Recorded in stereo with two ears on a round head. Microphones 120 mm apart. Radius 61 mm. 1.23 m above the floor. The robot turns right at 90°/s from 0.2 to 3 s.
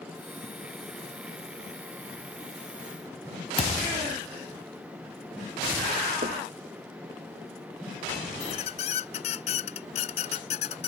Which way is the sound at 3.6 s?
50° left (ahead or behind).